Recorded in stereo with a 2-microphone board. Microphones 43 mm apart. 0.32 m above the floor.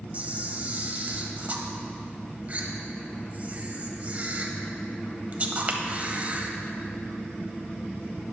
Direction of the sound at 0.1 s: 35° right (ahead or behind).